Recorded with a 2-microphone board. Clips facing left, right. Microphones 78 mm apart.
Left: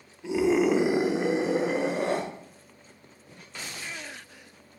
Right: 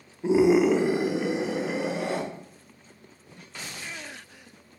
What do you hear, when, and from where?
0.2 s a scream: 35° right (ahead or behind), 0.7 m; by 2.2 s 45° left (ahead or behind), 2 m